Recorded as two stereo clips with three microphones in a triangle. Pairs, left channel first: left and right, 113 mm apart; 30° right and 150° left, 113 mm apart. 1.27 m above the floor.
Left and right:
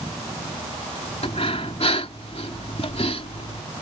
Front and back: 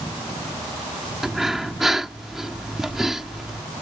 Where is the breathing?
65° left.